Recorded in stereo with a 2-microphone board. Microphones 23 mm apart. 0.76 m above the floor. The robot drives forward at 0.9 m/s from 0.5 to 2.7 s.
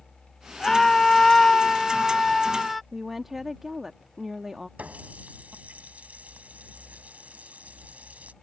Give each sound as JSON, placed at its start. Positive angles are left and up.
{"t": 0.6, "sound": "a scream", "side_deg": 15}
{"t": 2.9, "sound": "a woman speaking", "side_deg": -10}
{"t": 4.8, "sound": "a running tap", "side_deg": -85}